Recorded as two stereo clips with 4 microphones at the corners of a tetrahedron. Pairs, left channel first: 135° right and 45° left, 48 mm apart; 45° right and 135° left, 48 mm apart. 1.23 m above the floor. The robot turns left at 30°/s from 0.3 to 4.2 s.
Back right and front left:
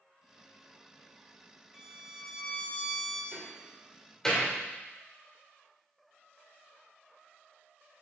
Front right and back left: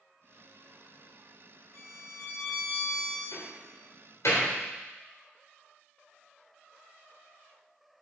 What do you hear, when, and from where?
1.7 s a violin: 35° right, 2.5 m; by 3.2 s 80° right, 2.5 m
3.3 s a door slam: 25° right, 3.5 m; by 4.5 s 55° right, 3.5 m